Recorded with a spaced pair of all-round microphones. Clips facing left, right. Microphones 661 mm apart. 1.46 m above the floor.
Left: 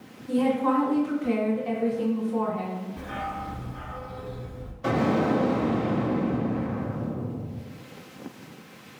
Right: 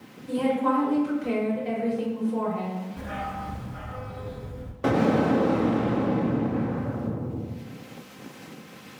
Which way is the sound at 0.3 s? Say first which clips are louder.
Left 1 dB; 50° right (ahead or behind).